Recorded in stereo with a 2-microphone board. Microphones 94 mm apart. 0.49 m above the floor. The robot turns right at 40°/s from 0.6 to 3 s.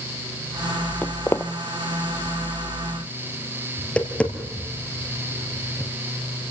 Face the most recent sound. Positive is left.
turn(degrees=10)  # may be behind; listen again after turning